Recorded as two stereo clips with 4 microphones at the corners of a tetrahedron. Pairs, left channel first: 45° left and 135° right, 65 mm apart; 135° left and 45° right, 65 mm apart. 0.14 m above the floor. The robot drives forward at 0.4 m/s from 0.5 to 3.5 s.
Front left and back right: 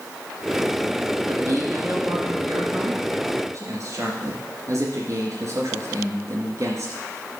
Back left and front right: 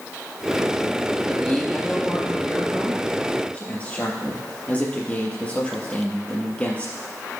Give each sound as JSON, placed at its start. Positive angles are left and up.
{"t": 1.3, "sound": "a man speaking", "azimuth_deg": -150, "distance_m": 2.5}